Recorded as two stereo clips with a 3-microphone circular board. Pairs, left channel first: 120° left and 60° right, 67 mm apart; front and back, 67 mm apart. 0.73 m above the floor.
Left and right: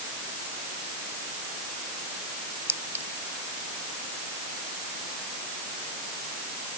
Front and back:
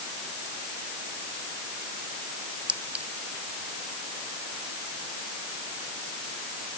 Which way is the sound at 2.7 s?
110° right.